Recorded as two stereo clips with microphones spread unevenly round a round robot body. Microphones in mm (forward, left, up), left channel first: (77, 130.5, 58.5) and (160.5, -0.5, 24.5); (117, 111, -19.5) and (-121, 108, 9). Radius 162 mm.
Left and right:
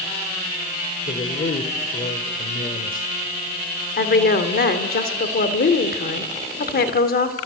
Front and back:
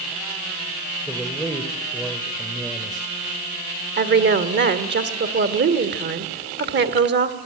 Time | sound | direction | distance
1.1 | a man speaking | 90° left | 2 m
4.0 | a woman speaking | 140° left | 1.9 m